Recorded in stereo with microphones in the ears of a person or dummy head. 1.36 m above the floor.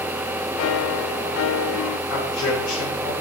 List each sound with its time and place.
0.6 s a piano: 80° left, 0.7 m
2.1 s a man speaking: 55° left (ahead or behind), 7 m